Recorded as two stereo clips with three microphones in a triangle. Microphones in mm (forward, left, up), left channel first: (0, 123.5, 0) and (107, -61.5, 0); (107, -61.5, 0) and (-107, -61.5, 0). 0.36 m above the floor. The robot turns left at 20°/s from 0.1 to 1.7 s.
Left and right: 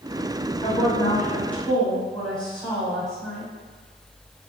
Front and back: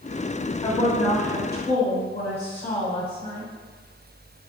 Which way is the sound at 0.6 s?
55° left.